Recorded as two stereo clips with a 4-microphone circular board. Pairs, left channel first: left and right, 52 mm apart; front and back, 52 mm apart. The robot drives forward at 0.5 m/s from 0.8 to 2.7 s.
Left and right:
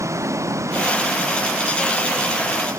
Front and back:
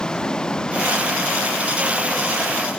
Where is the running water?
75° right; by 2.8 s 80° right.